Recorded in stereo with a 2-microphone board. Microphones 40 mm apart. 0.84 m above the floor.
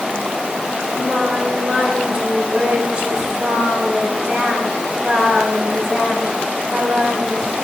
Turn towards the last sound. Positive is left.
turn(degrees=-25)  # may be behind; listen again after turning